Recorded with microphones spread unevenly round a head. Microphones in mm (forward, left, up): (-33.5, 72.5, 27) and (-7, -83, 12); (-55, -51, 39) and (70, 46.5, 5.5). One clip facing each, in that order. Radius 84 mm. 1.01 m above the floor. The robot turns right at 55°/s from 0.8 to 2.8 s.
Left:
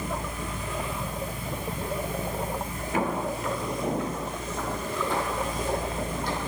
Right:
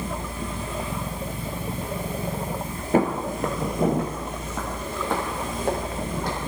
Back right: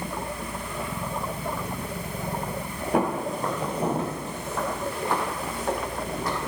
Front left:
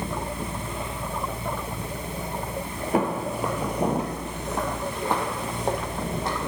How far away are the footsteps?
About 1.0 m.